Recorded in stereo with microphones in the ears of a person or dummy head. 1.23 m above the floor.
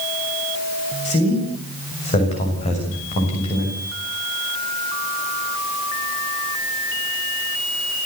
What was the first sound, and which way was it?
A man speaking, 30° left (ahead or behind).